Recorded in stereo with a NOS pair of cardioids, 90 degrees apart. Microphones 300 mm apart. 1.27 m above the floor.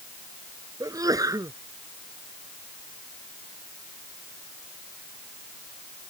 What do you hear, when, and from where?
0.8 s a sneeze: 10° right